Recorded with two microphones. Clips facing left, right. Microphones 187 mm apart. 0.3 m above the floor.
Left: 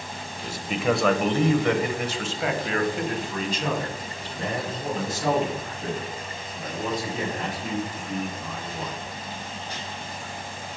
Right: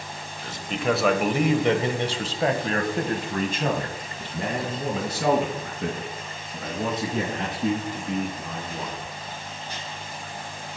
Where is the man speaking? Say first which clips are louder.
Left 1 dB; 15° left (ahead or behind), 1.1 m; by 9.0 s 75° right (ahead or behind), 4.5 m.